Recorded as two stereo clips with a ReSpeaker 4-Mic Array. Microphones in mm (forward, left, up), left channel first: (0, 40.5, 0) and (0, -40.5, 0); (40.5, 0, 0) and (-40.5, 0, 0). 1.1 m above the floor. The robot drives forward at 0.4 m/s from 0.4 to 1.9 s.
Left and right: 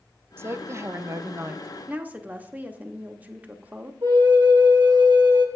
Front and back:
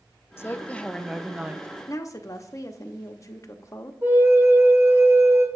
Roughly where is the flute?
Behind right.